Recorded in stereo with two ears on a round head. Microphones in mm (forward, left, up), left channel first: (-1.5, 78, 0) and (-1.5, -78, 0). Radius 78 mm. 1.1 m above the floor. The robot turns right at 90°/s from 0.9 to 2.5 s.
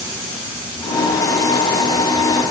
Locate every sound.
Only background noise.